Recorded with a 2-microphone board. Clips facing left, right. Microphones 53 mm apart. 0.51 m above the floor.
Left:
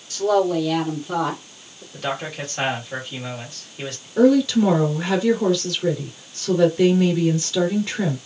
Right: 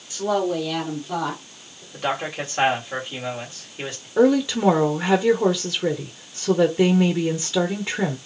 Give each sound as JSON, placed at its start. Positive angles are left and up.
{"t": 0.1, "sound": "a woman speaking", "side_deg": -20, "distance_m": 1.3}
{"t": 1.9, "sound": "a man speaking", "side_deg": -20, "distance_m": 1.7}
{"t": 4.2, "sound": "a woman speaking", "side_deg": -20, "distance_m": 0.8}